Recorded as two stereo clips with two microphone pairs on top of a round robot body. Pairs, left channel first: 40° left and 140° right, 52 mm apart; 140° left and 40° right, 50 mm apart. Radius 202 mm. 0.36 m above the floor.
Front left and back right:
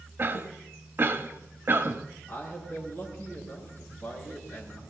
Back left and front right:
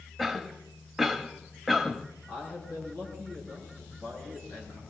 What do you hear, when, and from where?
0.2 s a cough: 155° right, 1.4 m
2.3 s a man speaking: 95° left, 7 m